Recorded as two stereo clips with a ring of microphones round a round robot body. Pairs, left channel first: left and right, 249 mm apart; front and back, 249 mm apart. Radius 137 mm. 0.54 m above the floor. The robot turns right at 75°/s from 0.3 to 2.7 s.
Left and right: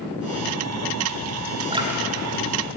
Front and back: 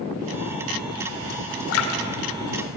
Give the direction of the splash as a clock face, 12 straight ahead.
1 o'clock.